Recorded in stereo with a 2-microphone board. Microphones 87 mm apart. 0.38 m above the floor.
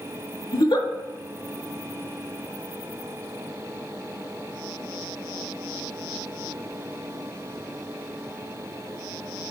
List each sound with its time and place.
0.5 s a giggle: 60° left (ahead or behind), 0.7 m